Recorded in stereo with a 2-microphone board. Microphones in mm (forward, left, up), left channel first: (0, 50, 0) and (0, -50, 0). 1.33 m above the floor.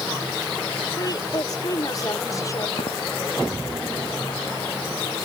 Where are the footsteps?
75° left (ahead or behind).